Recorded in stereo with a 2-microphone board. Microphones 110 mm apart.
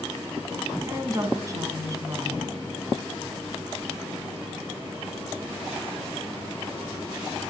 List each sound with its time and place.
0.9 s a woman speaking: 35° right (ahead or behind), 1.8 m